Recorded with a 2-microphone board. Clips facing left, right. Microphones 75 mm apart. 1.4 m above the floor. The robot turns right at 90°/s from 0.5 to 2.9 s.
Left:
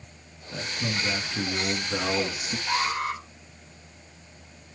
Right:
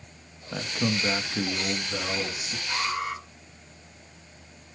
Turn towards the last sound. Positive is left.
turn(degrees=80)